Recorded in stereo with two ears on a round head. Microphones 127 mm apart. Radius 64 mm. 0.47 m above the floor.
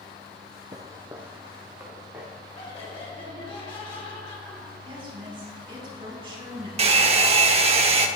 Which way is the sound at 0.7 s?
30° right (ahead or behind).